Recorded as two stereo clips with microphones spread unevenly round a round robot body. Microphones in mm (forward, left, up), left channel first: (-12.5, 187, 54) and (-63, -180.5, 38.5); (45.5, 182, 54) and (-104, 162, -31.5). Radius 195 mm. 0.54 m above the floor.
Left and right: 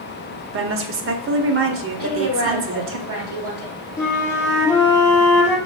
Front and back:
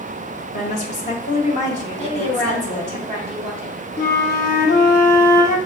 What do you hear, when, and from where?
0.5 s a woman speaking: 70° right, 0.7 m
2.0 s a woman speaking: 150° right, 3 m
4.0 s a flute: straight ahead, 0.9 m